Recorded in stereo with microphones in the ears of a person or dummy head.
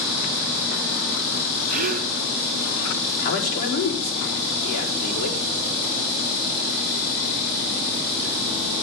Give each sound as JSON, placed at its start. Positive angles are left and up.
{"t": 1.7, "sound": "a gasp", "side_deg": -45, "distance_m": 0.6}
{"t": 3.2, "sound": "a man speaking", "side_deg": 55, "distance_m": 4.5}